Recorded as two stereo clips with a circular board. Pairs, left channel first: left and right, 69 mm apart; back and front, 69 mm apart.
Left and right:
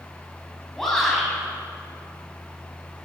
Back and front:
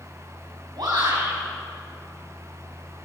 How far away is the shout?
About 8.5 m.